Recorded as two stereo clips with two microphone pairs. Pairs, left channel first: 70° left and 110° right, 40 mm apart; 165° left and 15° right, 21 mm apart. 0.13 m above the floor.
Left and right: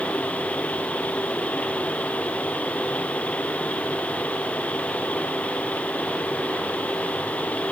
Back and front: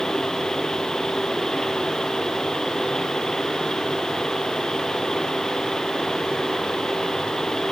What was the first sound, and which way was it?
Only background noise.